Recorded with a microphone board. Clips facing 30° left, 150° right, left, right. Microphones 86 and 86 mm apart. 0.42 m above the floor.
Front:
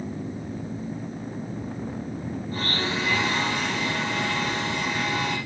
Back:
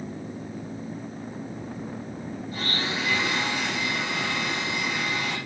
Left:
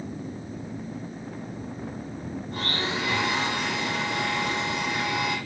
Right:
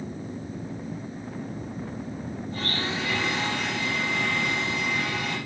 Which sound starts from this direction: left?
A blender, at 2.5 s.